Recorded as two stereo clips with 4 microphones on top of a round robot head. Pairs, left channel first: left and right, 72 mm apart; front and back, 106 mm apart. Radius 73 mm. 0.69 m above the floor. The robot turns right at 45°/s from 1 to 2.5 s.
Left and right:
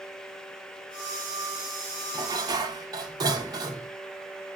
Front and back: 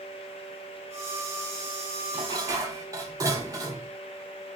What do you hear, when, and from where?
2.1 s dishes clattering: 135° right, 1.3 m; by 3.9 s 120° right, 1.3 m